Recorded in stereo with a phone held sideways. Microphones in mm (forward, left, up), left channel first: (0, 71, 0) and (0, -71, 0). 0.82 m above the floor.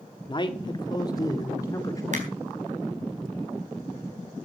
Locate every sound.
0.3 s a man speaking: 35° left (ahead or behind), 1.6 m; by 2.0 s 25° left (ahead or behind), 3.5 m
2.1 s a finger snap: 55° right (ahead or behind), 4.5 m